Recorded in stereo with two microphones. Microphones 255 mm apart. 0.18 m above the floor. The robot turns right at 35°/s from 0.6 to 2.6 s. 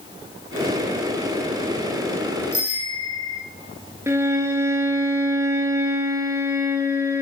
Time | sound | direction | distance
2.5 | a bicycle bell | 65° right (ahead or behind) | 6.5 m
4.1 | a violin | 10° right (ahead or behind) | 2.5 m